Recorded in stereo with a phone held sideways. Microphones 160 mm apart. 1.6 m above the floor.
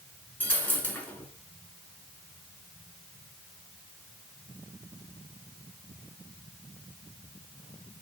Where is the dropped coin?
10° left (ahead or behind), 2.5 m.